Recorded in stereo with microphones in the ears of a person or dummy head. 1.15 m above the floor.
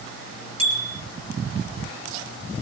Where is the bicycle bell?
30° right (ahead or behind), 2.5 m.